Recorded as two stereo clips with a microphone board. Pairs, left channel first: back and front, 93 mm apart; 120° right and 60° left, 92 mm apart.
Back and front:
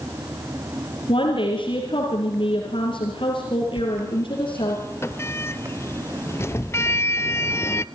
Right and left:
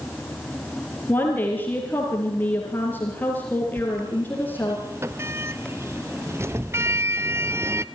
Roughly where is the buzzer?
I don't hear a buzzer.